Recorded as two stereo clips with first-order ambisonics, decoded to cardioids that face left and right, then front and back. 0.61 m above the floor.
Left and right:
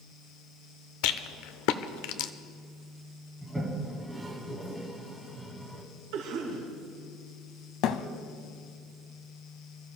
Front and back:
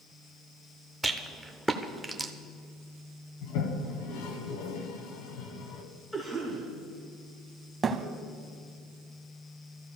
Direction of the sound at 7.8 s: 110° left.